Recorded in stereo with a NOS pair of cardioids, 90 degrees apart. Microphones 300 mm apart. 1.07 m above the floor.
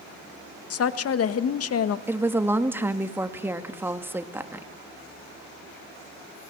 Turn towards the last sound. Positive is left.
turn(degrees=-5)